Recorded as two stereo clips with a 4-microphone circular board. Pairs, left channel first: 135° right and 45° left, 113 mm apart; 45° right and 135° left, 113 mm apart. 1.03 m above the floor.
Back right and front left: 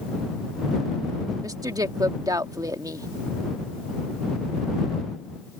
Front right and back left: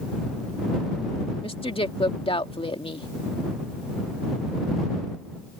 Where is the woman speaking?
10° right.